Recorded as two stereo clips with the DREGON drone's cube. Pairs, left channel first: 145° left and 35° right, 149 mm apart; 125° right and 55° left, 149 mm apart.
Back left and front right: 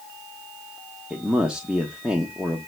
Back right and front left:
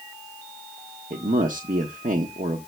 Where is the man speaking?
50° left, 1.1 m.